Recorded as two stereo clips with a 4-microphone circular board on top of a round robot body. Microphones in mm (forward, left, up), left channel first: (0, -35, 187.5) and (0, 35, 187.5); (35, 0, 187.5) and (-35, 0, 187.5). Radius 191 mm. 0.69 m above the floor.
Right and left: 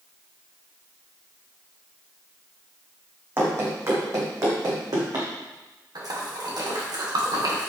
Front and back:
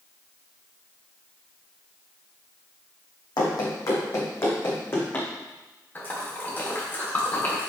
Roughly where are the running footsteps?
Ahead left.